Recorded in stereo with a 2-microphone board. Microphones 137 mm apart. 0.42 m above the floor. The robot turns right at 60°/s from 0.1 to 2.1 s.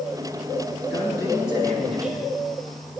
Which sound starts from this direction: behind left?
A man speaking, at 0.9 s.